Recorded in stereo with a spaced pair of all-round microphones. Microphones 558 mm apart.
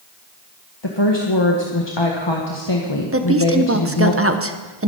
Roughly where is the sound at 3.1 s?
Right.